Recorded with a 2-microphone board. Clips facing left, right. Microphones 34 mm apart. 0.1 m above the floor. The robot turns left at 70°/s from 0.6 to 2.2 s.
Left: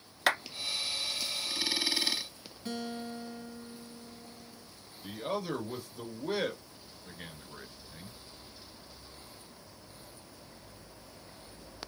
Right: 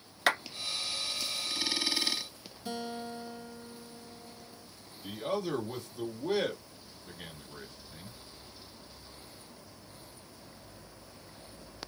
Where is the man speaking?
10° left (ahead or behind), 1.5 m.